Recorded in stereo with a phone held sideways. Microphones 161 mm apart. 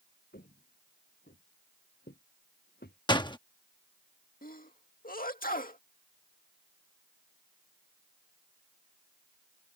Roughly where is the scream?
I don't hear a scream.